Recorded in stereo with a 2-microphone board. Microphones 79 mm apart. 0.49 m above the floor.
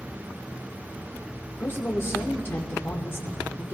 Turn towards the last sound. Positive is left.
turn(degrees=30)  # may be behind; listen again after turning